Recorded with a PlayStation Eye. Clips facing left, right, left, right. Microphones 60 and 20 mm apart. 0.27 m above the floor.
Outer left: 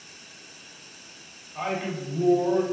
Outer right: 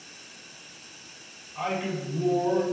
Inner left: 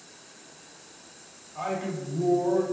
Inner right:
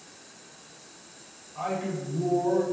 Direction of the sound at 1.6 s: 15° left (ahead or behind).